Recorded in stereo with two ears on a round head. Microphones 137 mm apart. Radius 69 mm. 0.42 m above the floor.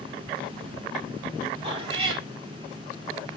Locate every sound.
1.6 s a cat meowing: 35° right (ahead or behind), 4.5 m